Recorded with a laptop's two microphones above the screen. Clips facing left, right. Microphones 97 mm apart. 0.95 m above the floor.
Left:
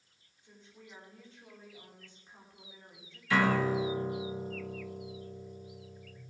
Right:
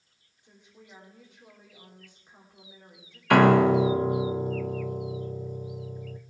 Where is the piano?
70° right (ahead or behind), 0.6 m.